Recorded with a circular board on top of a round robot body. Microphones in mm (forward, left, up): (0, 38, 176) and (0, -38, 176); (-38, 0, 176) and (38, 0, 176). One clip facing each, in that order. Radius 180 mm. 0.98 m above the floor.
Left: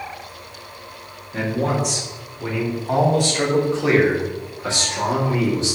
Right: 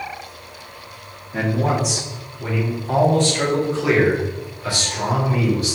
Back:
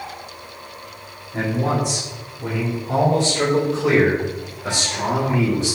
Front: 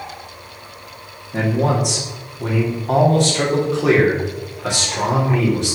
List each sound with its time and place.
1.3 s a man speaking: 5° right, 3 m; by 5.8 s 30° left, 5 m